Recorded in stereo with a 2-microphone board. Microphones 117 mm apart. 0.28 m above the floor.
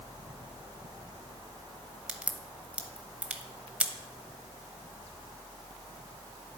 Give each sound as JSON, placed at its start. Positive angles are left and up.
{"t": 2.1, "sound": "a crack", "side_deg": -10, "distance_m": 0.7}